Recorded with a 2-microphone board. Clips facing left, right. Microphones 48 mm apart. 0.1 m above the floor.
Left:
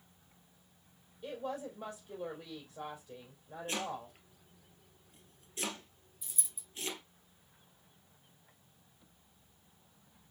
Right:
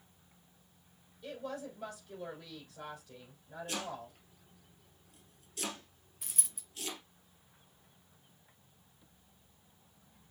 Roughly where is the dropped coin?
Right.